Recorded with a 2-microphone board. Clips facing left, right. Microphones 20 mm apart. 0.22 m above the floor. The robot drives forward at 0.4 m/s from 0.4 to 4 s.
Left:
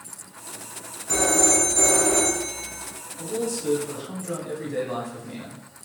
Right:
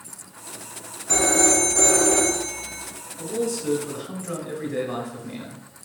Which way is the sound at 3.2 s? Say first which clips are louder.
Right 2 dB; centre (ahead or behind).